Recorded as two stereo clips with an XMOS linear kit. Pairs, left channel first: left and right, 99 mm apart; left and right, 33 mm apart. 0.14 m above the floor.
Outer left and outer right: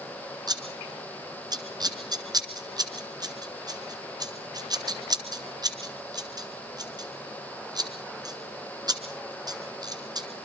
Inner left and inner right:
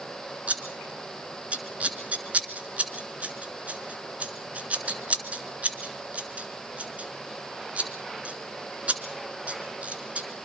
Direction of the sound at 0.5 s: 45° right (ahead or behind).